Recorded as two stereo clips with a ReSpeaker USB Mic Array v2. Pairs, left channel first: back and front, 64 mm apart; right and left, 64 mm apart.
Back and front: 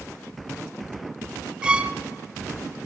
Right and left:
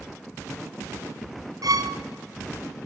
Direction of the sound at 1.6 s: 75° left.